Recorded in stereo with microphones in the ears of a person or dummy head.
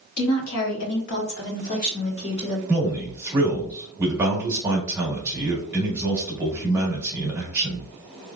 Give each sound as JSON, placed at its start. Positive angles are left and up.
{"t": 0.2, "sound": "a woman speaking", "side_deg": 70, "distance_m": 0.9}
{"t": 2.7, "sound": "a man speaking", "side_deg": -10, "distance_m": 1.5}